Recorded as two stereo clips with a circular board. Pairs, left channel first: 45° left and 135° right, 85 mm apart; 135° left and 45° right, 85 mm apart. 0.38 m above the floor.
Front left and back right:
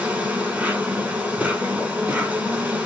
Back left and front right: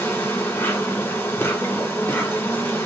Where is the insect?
170° left, 1.4 m.